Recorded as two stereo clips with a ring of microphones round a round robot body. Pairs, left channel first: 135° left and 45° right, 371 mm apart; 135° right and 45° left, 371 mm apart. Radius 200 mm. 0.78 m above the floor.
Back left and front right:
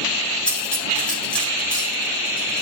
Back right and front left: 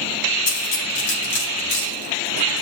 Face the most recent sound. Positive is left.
turn(degrees=-135)